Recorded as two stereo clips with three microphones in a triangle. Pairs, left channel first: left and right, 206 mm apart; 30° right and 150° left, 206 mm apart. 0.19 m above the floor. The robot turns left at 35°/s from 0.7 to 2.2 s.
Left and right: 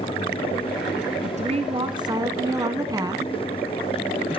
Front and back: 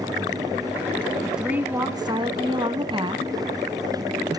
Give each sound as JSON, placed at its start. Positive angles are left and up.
{"t": 1.2, "sound": "a woman speaking", "azimuth_deg": -120, "distance_m": 1.5}